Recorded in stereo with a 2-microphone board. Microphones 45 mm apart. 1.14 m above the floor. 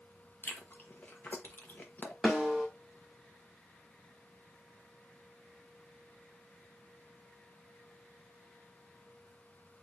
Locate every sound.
0.4 s chewing: 45° left (ahead or behind), 0.9 m
2.2 s a snare drum: centre (ahead or behind), 2 m